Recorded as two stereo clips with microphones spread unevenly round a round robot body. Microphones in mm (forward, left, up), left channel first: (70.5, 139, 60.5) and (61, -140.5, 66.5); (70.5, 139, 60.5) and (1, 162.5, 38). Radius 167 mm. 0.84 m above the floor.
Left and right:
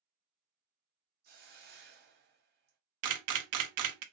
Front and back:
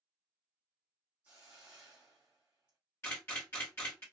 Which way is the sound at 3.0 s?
90° right.